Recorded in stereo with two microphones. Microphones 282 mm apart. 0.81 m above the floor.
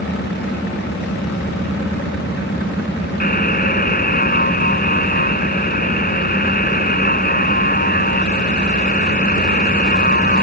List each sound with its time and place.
3.2 s a buzzer: 35° left (ahead or behind)